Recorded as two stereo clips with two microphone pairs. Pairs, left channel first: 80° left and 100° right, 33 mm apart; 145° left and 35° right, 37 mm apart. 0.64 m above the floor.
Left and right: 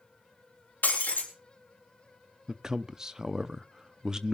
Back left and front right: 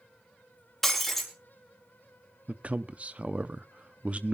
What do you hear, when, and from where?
0.8 s breaking glass: 60° left, 3 m
2.5 s a man speaking: 40° right, 0.6 m